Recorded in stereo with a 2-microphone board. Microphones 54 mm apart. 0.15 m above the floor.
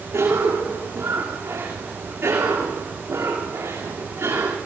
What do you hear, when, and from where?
0.1 s a cough: 70° right (ahead or behind), 8.5 m